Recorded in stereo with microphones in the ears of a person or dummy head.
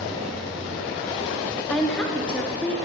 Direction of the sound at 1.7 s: 5° left (ahead or behind).